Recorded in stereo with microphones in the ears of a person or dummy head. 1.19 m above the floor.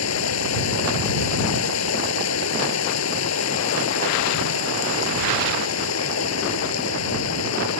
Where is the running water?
80° left.